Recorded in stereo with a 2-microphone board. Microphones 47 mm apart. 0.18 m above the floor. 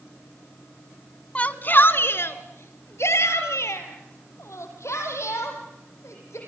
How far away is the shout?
About 1.1 m.